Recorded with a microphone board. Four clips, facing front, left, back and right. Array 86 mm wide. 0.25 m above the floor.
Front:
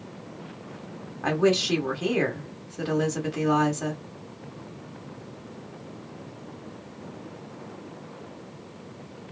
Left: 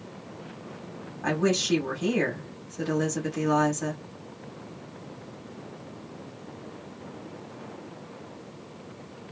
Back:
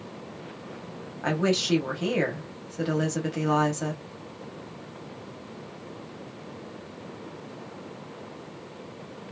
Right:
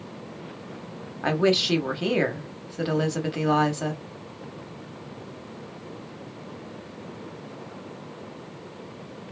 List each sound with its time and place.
1.2 s a woman speaking: 90° right, 1.1 m